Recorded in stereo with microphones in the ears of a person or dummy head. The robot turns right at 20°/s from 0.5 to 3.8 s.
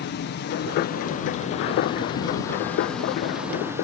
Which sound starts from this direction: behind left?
An insect, at 0.0 s.